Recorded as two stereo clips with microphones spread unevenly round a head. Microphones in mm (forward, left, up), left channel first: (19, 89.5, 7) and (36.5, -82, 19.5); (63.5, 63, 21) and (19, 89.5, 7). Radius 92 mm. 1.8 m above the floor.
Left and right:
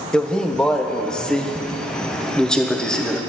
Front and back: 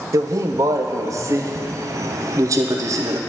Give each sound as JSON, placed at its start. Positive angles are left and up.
{"t": 0.1, "sound": "a man speaking", "azimuth_deg": -175, "distance_m": 0.6}